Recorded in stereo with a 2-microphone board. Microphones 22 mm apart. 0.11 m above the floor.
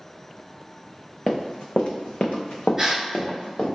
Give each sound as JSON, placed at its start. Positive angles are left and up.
{"t": 1.3, "sound": "running footsteps", "side_deg": 35, "distance_m": 0.6}
{"t": 2.8, "sound": "a gasp", "side_deg": -20, "distance_m": 1.6}